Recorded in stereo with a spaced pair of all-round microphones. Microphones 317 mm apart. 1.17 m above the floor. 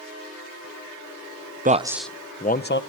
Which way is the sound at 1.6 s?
25° right (ahead or behind).